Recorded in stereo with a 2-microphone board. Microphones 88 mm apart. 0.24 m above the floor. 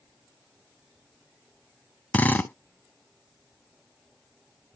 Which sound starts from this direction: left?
A drill, at 2.1 s.